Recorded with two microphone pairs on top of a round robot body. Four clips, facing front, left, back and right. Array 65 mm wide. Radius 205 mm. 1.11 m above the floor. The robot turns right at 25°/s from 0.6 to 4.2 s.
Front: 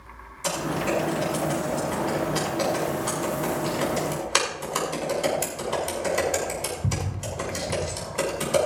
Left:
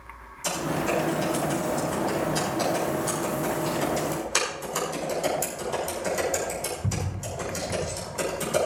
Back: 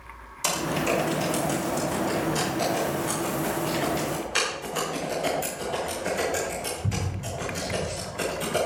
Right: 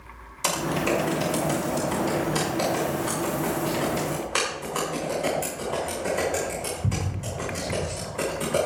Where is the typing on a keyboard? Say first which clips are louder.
Right 2 dB, even; 105° right, 5.5 m; by 8.7 s 15° right, 5.5 m.